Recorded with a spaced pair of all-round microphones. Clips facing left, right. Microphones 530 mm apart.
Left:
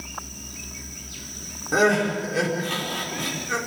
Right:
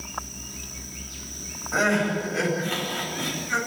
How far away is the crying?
About 5.5 m.